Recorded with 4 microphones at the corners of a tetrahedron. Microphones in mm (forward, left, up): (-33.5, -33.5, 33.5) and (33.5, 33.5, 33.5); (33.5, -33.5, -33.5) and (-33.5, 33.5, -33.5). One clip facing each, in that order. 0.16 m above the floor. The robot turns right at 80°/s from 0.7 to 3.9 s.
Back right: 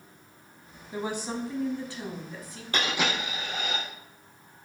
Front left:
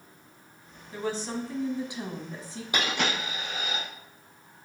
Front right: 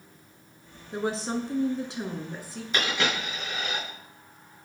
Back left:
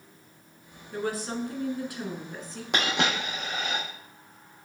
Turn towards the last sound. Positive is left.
turn(degrees=-145)